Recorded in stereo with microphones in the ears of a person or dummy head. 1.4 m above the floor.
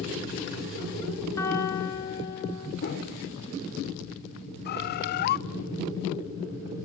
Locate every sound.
1.4 s a piano: 15° left (ahead or behind), 3.5 m
2.8 s a whoosh: 55° left (ahead or behind), 2.5 m
4.7 s a bird: 55° left (ahead or behind), 0.6 m